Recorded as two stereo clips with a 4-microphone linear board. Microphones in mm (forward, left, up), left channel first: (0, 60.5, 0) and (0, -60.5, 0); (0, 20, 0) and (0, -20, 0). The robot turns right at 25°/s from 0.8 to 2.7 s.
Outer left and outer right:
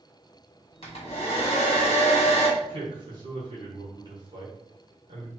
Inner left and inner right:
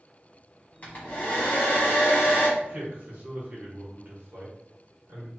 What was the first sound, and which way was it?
A hair dryer, 60° left.